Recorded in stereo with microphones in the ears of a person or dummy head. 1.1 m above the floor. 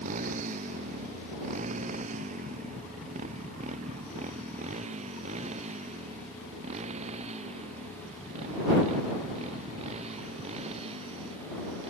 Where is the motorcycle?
45° right (ahead or behind); by 11.9 s 35° right (ahead or behind).